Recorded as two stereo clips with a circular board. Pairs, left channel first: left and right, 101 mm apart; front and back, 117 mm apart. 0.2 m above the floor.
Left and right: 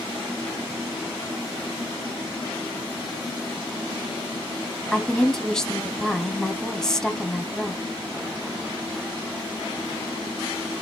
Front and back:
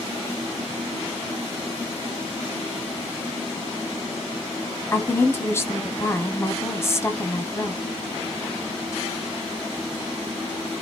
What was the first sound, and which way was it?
A woman speaking, 15° left.